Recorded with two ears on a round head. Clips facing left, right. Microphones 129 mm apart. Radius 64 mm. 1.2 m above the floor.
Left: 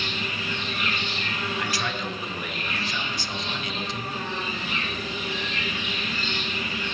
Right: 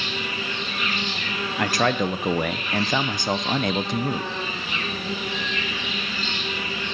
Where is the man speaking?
45° right (ahead or behind), 0.7 m.